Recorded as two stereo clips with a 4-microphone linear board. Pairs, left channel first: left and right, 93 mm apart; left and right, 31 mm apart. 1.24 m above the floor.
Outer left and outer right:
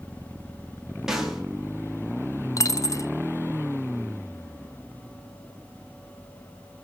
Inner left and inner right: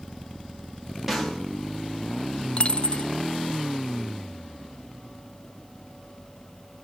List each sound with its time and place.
1.1 s a snare drum: 5° right (ahead or behind), 3.5 m
2.6 s a dropped coin: 35° left (ahead or behind), 1.0 m